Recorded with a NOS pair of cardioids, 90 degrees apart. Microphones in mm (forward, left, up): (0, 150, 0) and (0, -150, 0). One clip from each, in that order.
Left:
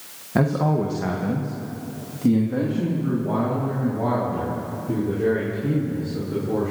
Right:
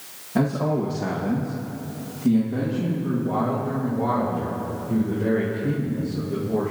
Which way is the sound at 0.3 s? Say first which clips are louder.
Left 2 dB; 30° left.